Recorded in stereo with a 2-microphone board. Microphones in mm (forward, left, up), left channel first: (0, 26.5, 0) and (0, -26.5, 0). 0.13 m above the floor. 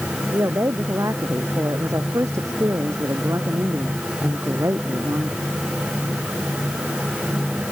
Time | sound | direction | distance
0.3 | a woman speaking | 70° right (ahead or behind) | ?